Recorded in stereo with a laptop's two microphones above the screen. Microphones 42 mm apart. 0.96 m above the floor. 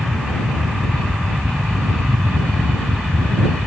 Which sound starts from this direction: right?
A fan, at 0.0 s.